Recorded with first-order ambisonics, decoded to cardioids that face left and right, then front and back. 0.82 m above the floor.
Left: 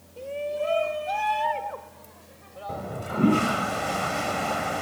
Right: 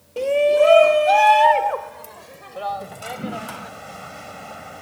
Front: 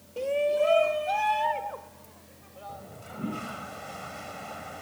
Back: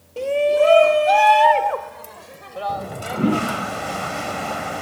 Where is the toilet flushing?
145° left.